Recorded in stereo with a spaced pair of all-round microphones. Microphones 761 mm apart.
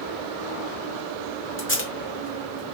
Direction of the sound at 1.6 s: 15° left (ahead or behind).